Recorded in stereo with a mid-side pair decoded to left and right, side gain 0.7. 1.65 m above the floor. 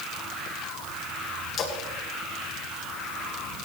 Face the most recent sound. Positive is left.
turn(degrees=35)